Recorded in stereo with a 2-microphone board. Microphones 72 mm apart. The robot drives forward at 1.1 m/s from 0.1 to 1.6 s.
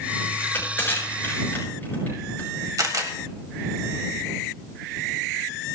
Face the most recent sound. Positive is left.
turn(degrees=-50)  # may be behind; listen again after turning